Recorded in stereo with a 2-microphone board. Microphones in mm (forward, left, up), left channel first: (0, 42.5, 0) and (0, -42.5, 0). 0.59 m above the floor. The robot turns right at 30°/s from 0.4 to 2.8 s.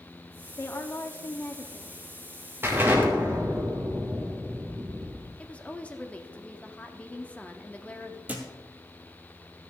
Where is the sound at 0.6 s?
80° left, 1.1 m; by 1.9 s 120° left, 1.1 m.